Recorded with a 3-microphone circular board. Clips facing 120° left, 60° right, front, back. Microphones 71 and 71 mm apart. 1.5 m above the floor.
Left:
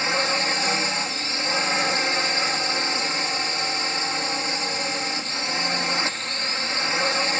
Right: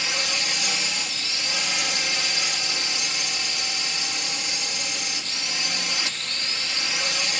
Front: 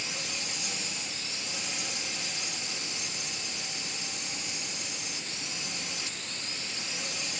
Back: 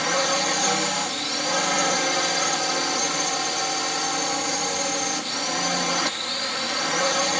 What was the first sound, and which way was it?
A drone, 175° left.